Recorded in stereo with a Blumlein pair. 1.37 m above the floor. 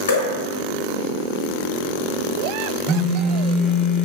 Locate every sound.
0.1 s dripping: 70° left, 1.0 m
2.9 s a phone buzzing: 15° right, 0.6 m